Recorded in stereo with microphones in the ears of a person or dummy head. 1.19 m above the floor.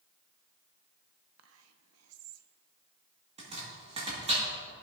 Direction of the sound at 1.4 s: 80° right.